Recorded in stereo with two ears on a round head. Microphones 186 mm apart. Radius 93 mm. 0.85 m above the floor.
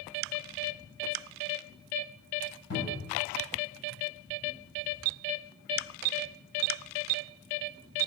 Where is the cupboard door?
75° left (ahead or behind), 4 m.